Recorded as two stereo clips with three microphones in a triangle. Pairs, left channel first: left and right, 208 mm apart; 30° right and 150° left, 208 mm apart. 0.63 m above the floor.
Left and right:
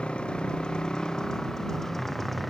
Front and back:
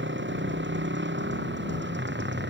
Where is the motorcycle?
175° left; by 2.5 s straight behind.